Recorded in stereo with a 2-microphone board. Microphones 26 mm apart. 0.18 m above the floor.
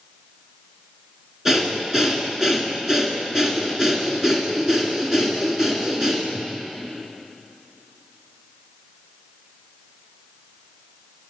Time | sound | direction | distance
1.4 | breathing | 15° right (ahead or behind) | 1.8 m